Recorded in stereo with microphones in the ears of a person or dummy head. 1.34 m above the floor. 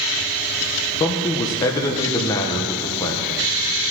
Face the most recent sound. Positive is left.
turn(degrees=25)  # may be behind; listen again after turning